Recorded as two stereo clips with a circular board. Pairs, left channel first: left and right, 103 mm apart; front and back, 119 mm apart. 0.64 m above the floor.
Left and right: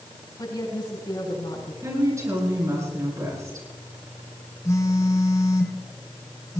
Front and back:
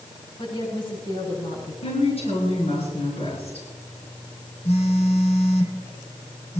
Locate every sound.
0.4 s a woman speaking: 45° left, 6.5 m
1.8 s a woman speaking: 30° right, 10 m
4.7 s a phone buzzing: 30° left, 2.5 m